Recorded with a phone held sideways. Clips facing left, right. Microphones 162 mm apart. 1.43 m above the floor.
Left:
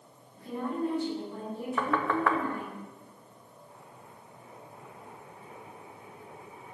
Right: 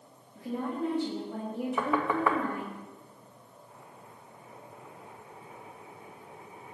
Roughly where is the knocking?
Centre.